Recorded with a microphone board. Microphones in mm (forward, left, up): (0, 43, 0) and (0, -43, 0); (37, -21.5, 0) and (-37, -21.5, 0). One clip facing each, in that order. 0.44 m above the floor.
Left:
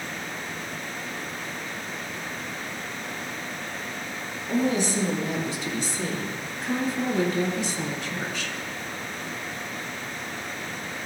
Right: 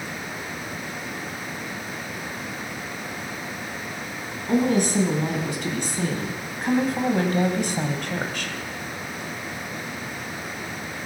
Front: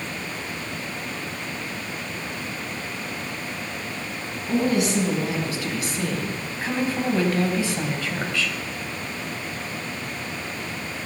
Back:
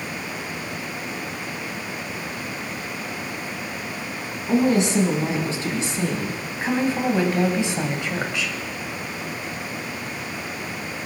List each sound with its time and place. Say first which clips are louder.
4.5 s a woman speaking: right 4 dB, back 3 dB; 120° right, 4.5 m; by 8.6 s 110° right, 2.5 m